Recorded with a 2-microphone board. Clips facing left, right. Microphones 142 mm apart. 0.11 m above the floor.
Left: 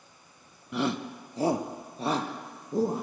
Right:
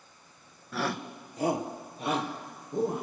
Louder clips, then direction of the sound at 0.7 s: Left 3 dB; 20° left (ahead or behind).